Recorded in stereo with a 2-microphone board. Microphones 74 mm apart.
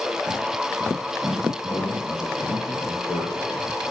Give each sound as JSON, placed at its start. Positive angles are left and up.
{"t": 1.6, "sound": "a man speaking", "side_deg": 65, "distance_m": 6.0}